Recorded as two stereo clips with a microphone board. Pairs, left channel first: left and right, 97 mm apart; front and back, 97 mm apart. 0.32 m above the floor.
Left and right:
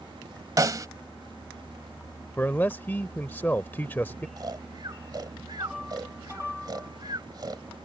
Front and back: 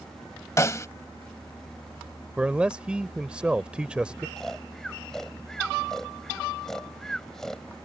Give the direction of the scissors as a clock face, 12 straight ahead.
I don't hear scissors.